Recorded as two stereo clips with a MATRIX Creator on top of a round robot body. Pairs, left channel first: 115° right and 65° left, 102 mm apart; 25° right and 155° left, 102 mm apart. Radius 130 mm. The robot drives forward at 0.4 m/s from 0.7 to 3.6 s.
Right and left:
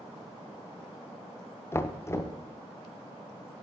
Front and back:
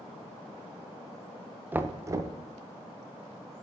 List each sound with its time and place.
1.7 s knocking: 150° right, 0.6 m; by 2.4 s 165° right, 0.7 m